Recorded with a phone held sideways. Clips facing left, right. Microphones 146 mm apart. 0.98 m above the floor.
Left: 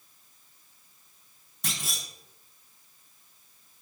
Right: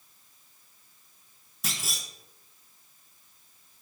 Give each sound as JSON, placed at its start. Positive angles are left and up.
{"t": 1.6, "sound": "a clunk", "side_deg": -5, "distance_m": 0.9}